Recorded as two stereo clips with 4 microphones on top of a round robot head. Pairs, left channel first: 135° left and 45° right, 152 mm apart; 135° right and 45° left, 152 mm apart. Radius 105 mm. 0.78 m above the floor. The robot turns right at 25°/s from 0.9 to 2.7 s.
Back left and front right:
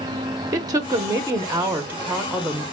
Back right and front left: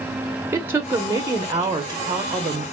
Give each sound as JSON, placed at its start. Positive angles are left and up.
{"t": 0.5, "sound": "a woman speaking", "azimuth_deg": -10, "distance_m": 0.6}